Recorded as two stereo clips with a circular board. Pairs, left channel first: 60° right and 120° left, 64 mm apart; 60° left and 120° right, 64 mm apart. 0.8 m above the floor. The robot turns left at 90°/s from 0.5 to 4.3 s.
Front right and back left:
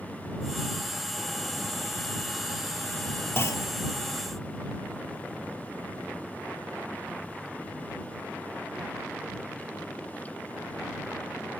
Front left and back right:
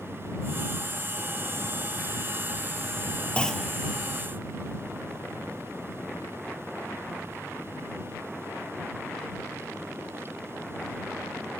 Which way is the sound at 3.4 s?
10° right.